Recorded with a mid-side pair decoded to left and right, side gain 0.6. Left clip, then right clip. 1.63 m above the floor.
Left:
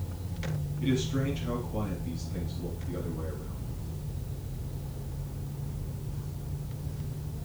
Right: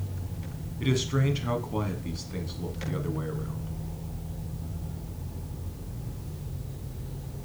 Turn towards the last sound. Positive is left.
turn(degrees=-55)